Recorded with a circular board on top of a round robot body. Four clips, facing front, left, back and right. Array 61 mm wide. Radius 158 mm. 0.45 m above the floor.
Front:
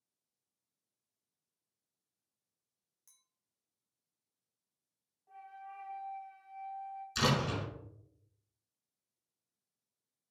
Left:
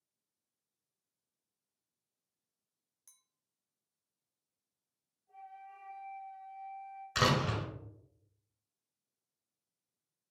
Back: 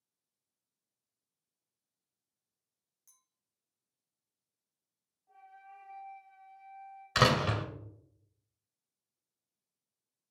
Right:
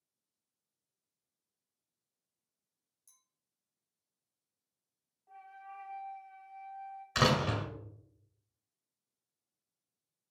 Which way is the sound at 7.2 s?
175° right.